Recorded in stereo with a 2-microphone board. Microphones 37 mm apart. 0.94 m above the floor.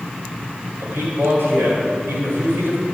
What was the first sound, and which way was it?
A man speaking, 80° right.